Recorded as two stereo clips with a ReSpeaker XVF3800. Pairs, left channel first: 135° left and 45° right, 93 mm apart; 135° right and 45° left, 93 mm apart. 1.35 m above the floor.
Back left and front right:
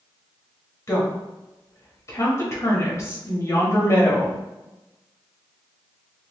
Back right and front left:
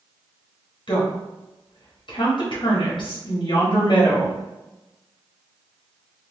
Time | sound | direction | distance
0.9 | a woman speaking | 170° right | 0.8 m